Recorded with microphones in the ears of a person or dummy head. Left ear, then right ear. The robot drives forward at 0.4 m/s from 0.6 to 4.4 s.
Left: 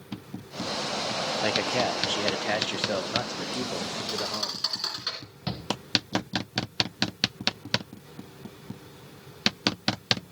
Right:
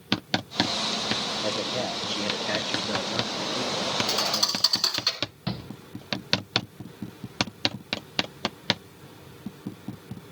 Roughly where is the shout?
Centre.